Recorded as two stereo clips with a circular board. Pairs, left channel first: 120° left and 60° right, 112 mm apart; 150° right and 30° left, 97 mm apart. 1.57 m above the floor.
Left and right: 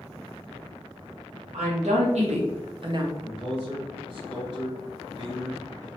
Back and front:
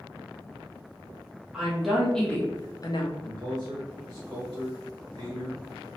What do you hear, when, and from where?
1.5 s a woman speaking: 55° right, 1.3 m; by 3.1 s 115° right, 0.7 m
3.2 s a man speaking: 10° right, 1.4 m